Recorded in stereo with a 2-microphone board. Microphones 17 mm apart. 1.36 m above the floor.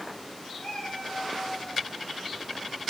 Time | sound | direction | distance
0.6 | a cat meowing | 70° left (ahead or behind) | 6.5 m